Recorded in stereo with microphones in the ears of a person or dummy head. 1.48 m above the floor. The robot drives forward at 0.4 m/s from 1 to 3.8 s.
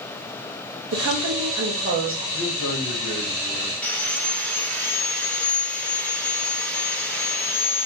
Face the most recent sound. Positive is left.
turn(degrees=10)  # may be behind; listen again after turning